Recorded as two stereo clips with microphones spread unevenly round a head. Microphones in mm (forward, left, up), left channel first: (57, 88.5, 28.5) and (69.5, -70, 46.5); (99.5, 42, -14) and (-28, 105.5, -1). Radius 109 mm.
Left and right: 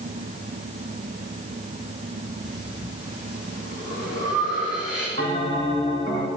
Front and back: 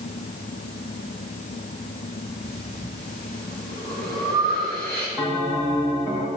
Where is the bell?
125° right, 2 m.